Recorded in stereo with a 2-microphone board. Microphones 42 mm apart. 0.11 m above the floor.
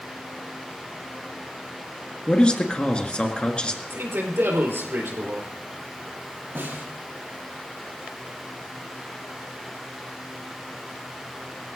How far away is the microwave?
I don't hear a microwave.